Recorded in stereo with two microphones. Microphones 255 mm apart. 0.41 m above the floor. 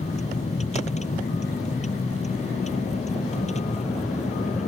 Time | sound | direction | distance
0.0 | a vehicle | 30° left (ahead or behind) | ?